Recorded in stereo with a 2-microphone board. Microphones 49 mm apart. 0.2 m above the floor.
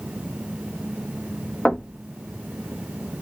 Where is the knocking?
20° left (ahead or behind), 0.7 m.